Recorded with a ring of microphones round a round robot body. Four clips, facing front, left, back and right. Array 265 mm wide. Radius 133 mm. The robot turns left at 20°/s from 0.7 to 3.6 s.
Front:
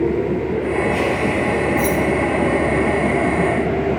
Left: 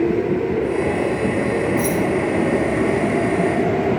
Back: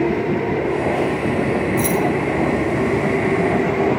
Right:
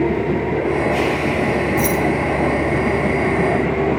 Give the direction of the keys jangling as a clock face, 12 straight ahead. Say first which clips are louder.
Right 1 dB, front 1 dB; 5 o'clock.